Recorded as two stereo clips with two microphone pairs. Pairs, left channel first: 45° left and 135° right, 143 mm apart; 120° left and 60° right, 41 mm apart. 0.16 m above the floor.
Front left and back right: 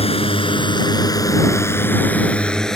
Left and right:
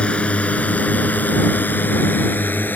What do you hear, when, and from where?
0.0 s a drone: 75° left; by 2.8 s 135° left